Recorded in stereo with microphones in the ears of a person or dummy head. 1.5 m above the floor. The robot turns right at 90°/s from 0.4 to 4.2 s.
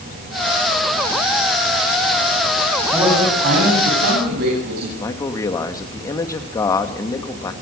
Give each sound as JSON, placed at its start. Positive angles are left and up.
{"t": 2.9, "sound": "a man speaking", "azimuth_deg": -175, "distance_m": 10.0}
{"t": 5.0, "sound": "a man speaking", "side_deg": 20, "distance_m": 2.5}